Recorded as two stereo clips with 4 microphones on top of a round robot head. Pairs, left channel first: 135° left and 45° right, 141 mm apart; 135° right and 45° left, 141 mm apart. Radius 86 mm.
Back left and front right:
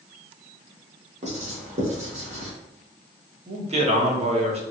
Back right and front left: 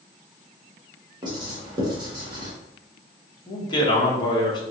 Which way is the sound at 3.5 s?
80° right.